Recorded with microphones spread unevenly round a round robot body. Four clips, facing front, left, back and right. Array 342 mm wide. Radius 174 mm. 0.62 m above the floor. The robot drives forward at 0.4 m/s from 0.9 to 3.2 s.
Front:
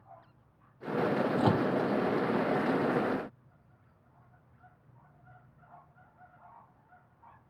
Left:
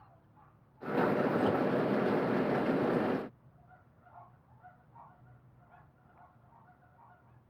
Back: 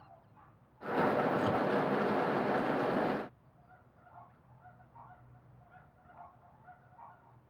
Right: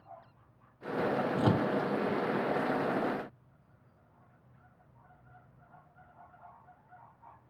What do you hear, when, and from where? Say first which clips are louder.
1.4 s a microwave: right 1 dB, front 4 dB; 60° right; by 1.7 s 65° right